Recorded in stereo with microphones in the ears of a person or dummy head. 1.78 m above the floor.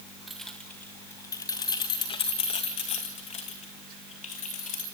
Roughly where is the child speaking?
No child speaking in this recording.